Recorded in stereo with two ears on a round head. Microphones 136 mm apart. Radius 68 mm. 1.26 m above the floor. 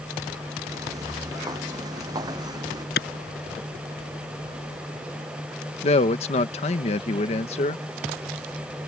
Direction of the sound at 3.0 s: 75° left (ahead or behind).